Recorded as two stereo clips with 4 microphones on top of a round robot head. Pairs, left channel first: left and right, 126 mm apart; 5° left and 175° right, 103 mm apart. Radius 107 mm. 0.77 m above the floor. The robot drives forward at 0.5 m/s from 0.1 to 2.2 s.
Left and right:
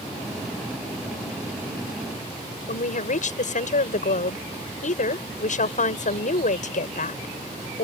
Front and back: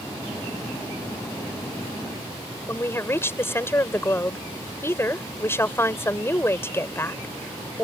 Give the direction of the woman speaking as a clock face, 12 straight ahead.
10 o'clock.